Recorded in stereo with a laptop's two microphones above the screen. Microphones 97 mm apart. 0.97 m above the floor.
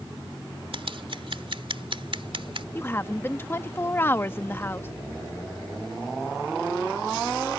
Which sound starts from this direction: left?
A woman speaking, at 2.8 s.